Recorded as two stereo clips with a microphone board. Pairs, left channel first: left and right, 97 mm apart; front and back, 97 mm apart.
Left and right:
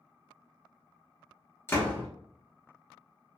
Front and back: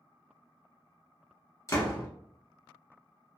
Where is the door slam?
40° left, 1.2 m.